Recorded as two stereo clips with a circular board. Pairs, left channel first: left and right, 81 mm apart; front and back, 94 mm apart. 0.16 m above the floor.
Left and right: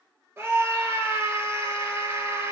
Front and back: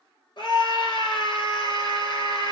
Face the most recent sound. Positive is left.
turn(degrees=-30)